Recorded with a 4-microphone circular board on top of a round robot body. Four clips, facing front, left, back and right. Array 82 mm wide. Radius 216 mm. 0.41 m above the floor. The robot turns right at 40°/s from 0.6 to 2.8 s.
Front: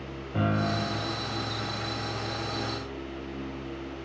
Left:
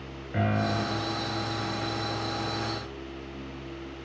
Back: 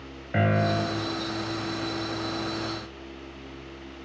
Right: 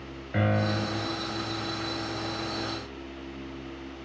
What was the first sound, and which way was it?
A piano, 170° right.